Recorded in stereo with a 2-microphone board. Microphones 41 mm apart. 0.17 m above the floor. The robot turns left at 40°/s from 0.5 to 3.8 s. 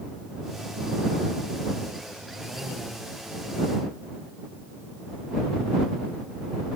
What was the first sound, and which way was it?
Only background noise.